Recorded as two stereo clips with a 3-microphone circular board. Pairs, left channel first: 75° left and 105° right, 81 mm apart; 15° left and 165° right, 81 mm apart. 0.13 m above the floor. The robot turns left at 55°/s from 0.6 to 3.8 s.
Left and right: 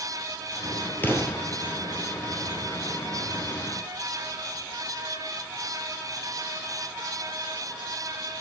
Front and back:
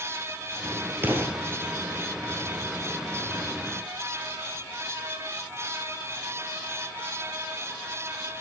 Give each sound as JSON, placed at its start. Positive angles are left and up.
{"t": 1.0, "sound": "an explosion", "azimuth_deg": 135, "distance_m": 2.5}